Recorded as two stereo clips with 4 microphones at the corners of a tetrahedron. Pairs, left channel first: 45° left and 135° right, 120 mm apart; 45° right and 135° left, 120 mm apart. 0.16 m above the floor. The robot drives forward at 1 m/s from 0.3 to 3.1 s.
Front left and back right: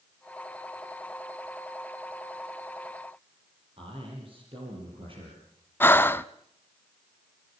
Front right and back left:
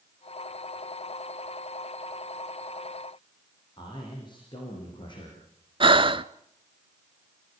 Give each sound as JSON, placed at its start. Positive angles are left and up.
{"t": 3.8, "sound": "a man speaking", "azimuth_deg": -95, "distance_m": 7.5}
{"t": 5.8, "sound": "breathing", "azimuth_deg": 115, "distance_m": 0.6}